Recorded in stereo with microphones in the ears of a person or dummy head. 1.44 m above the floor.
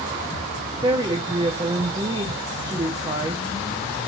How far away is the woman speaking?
About 0.5 m.